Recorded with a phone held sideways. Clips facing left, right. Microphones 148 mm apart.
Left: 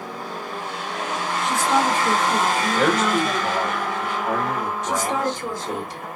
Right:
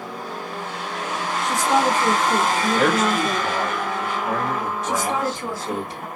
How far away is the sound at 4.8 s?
About 1.9 m.